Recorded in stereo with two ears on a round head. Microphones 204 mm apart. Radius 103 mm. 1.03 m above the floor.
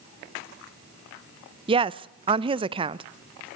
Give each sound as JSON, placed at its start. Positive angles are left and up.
{"t": 1.7, "sound": "a woman speaking", "side_deg": -25, "distance_m": 0.5}